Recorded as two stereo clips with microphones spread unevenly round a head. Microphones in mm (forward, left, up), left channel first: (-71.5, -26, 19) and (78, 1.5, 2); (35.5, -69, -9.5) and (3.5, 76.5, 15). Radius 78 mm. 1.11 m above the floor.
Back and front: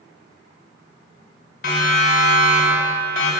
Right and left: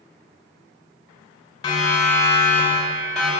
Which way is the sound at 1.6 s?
145° right.